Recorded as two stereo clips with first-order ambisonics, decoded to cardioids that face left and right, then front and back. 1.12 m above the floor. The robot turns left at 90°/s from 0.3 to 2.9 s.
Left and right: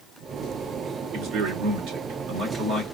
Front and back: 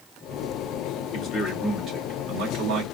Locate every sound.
1.1 s a man speaking: 30° right, 2.5 m; by 2.8 s 175° left, 2.5 m